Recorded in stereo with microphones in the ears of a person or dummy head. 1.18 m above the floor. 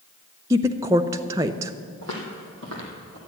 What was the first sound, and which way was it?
A woman speaking, 15° right (ahead or behind).